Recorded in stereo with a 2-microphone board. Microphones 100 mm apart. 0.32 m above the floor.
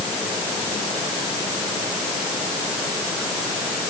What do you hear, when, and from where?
Only background noise.